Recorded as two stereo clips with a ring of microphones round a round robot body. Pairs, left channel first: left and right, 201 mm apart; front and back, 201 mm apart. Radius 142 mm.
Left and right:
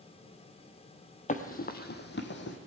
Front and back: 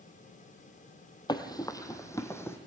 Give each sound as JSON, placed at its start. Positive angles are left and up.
{"t": 1.3, "sound": "running footsteps", "azimuth_deg": 60, "distance_m": 0.9}